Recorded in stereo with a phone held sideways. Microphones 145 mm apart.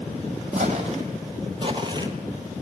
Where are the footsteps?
45° right (ahead or behind), 1.9 m; by 2.6 s 15° right (ahead or behind), 1.0 m.